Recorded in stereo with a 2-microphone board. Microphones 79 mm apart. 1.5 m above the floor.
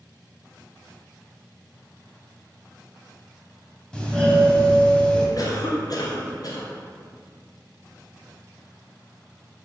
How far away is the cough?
About 0.6 m.